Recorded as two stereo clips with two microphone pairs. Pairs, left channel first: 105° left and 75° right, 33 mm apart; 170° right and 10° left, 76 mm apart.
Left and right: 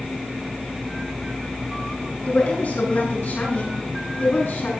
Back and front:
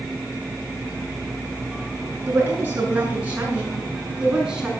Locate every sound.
2.3 s a woman speaking: 70° left, 9 m; by 4.7 s 85° left, 7.5 m